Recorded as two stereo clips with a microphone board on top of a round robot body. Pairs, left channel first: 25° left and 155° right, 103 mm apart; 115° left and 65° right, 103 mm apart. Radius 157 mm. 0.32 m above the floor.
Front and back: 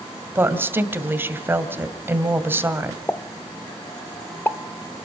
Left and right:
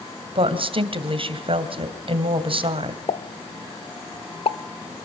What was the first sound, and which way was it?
A woman speaking, 90° right.